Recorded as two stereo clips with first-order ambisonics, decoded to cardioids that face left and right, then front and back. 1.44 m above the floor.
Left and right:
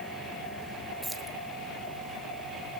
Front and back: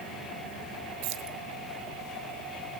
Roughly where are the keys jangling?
Behind.